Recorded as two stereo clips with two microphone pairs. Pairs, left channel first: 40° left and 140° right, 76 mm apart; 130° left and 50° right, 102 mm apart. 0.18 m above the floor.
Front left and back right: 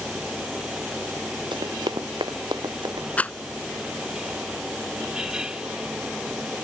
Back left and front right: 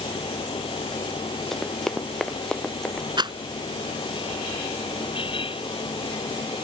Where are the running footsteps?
140° right.